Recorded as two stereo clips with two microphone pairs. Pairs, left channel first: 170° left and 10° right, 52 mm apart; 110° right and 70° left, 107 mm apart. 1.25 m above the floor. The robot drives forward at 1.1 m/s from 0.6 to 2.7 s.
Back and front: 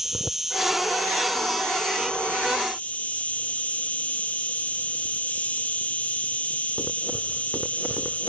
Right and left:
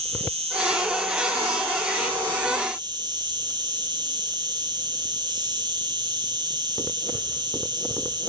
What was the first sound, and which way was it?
An insect, 75° left.